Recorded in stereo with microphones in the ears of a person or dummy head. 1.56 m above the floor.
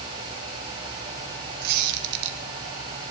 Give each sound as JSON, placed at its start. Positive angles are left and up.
{"t": 1.6, "sound": "a squeak", "side_deg": -60, "distance_m": 1.2}